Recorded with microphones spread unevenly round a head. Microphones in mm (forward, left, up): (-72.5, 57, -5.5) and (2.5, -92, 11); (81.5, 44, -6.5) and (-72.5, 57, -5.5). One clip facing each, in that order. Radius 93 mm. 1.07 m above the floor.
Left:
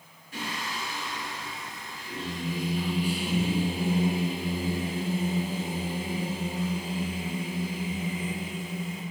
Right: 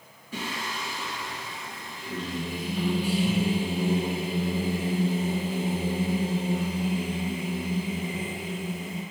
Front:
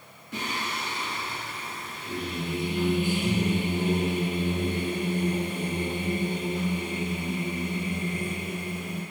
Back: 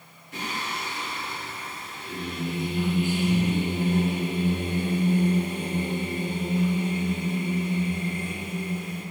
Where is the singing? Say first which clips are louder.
Right 2 dB, even; 45° right, 4.5 m.